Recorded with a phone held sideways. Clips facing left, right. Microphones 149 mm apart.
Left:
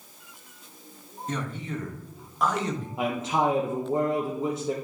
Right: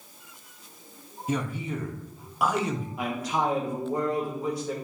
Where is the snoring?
I don't hear snoring.